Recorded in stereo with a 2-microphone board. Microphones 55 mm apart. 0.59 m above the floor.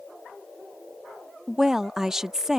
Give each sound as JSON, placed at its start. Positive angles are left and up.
{"t": 1.5, "sound": "a woman speaking", "side_deg": -10}